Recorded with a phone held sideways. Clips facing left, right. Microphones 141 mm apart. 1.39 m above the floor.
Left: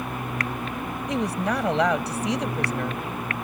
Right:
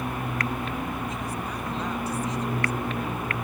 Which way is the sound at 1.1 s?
85° left.